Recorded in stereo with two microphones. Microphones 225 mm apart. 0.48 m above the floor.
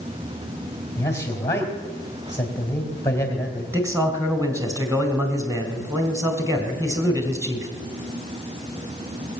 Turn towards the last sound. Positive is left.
turn(degrees=-15)  # may be behind; listen again after turning